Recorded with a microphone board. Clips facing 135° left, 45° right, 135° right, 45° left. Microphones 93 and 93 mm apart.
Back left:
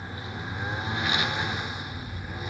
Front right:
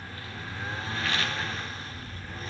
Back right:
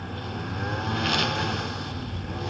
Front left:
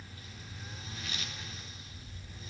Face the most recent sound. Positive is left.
turn(degrees=-150)